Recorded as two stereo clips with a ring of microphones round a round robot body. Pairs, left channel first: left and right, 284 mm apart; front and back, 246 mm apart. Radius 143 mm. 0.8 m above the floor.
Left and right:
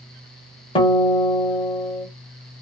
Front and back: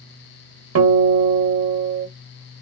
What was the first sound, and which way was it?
A guitar, 165° left.